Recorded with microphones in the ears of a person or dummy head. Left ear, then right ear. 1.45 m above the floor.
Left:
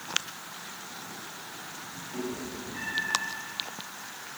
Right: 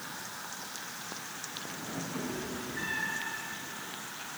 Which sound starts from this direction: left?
A cat meowing, at 2.1 s.